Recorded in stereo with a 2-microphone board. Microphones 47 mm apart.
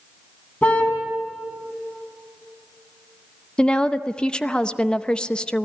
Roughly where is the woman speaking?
Centre.